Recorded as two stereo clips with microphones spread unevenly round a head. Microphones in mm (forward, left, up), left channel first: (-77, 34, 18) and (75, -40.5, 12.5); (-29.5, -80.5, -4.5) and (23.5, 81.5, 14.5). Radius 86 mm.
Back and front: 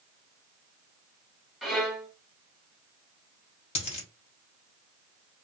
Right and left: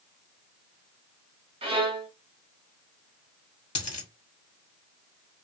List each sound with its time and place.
1.6 s a violin: 65° left, 1.5 m
3.8 s a dropped coin: 170° right, 1.9 m